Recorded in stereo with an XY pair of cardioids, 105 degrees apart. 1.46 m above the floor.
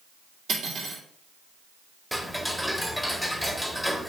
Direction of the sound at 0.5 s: 65° right.